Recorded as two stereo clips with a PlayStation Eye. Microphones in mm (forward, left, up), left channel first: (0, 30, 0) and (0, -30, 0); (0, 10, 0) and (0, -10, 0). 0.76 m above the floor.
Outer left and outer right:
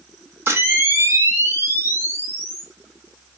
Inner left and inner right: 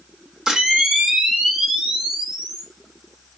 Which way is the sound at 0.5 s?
40° right (ahead or behind).